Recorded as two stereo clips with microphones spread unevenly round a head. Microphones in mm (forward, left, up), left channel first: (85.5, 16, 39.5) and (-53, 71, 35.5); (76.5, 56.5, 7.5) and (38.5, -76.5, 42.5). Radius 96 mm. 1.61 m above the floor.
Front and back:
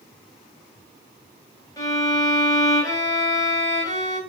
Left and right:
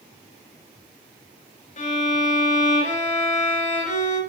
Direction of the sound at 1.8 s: 45° left.